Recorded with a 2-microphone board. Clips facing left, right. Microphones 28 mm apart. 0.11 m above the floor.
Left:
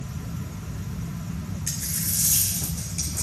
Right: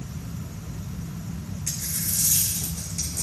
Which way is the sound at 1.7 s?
45° left (ahead or behind).